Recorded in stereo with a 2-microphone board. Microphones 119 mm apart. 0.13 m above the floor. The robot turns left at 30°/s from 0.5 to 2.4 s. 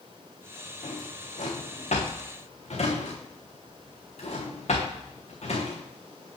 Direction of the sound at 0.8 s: 70° left (ahead or behind).